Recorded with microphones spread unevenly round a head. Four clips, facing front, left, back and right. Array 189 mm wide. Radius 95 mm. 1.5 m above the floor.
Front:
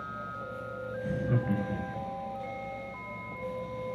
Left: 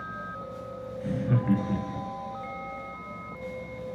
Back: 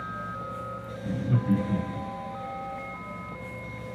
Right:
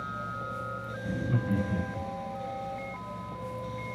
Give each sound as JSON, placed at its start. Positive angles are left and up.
{"t": 1.0, "sound": "laughter", "azimuth_deg": 85, "distance_m": 1.4}